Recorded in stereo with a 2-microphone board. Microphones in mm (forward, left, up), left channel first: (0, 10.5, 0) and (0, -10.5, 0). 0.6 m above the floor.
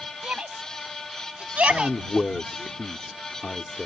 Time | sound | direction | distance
0.2 | a shout | 75° right (ahead or behind) | ?
1.7 | a man speaking | 45° left (ahead or behind) | ?